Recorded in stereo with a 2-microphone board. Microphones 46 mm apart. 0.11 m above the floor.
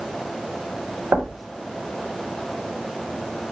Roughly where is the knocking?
Right.